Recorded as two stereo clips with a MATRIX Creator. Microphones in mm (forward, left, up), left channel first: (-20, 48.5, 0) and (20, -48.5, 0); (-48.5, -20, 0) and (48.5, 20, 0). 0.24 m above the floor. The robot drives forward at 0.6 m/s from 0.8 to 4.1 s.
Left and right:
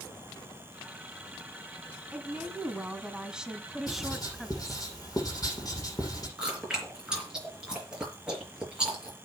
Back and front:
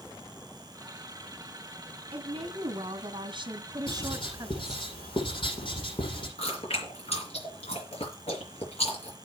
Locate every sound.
2.1 s a woman speaking: 10° left, 2 m; by 4.9 s 20° left, 1.2 m
3.9 s writing: 170° left, 7.5 m
6.4 s chewing: 150° right, 5.5 m